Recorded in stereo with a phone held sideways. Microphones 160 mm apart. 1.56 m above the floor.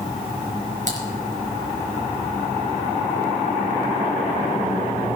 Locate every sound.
0.9 s typing on a keyboard: 50° right (ahead or behind), 4 m